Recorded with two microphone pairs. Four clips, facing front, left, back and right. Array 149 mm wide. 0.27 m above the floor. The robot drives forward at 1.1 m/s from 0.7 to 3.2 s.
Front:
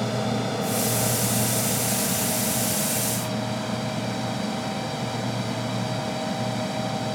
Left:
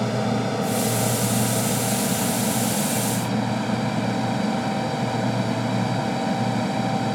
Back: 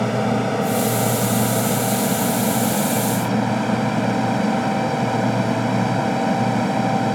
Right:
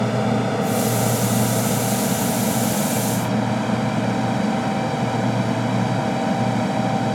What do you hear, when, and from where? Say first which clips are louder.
0.0 s an aircraft: right 3 dB, back 6 dB; 150° right; by 7.2 s 160° right